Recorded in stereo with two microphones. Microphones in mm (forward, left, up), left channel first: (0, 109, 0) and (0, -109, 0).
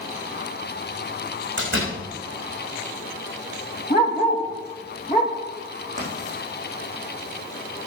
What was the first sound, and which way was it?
A door slam, 60° right (ahead or behind).